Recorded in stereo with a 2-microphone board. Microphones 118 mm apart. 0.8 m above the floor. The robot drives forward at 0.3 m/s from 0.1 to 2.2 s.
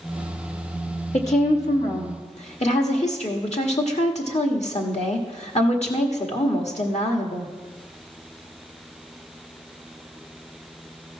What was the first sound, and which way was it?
A woman speaking, 60° left (ahead or behind).